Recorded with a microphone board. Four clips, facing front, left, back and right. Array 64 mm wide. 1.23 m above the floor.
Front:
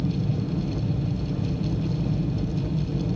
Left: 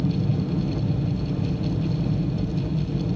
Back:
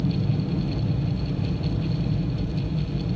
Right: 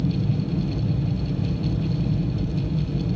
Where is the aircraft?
95° left; by 3.2 s 45° left.